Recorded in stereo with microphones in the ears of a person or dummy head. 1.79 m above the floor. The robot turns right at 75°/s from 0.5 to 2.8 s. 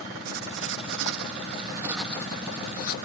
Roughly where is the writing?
Behind right.